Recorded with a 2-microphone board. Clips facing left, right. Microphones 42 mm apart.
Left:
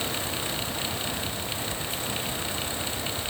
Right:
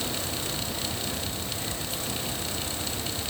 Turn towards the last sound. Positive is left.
No sound to turn to.